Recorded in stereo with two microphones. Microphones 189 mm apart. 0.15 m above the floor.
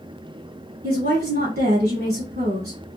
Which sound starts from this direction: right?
A woman speaking, at 0.8 s.